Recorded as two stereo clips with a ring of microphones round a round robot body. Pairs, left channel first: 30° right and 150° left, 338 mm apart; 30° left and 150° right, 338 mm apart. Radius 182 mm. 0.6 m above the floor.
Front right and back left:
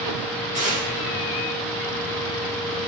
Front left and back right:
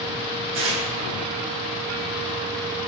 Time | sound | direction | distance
0.5 | tearing paper | 140° right | 3.5 m